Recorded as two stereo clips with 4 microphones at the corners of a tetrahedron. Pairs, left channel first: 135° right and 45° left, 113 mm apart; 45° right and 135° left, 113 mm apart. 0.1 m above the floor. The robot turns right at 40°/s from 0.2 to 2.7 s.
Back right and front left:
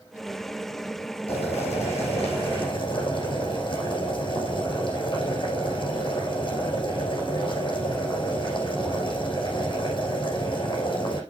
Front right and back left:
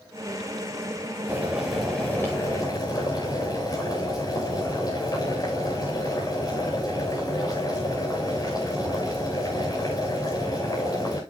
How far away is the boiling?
About 8.5 m.